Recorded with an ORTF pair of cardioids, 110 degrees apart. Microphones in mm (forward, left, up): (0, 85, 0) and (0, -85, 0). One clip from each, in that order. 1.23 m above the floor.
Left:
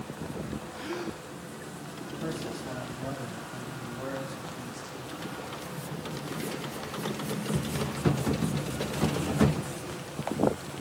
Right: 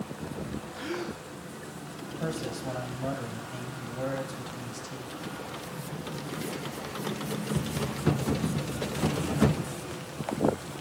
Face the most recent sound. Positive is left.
turn(degrees=-35)